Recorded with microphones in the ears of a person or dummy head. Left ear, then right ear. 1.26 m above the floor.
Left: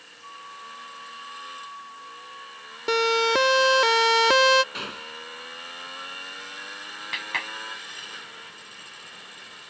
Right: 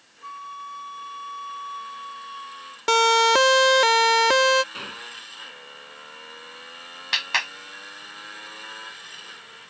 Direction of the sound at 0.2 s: 80° right.